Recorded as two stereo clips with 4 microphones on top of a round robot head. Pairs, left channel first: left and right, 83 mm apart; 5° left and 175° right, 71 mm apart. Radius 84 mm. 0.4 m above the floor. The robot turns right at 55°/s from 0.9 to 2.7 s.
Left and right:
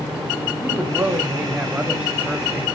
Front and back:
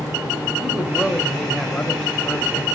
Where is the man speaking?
105° right, 1.1 m; by 2.8 s 5° right, 1.1 m.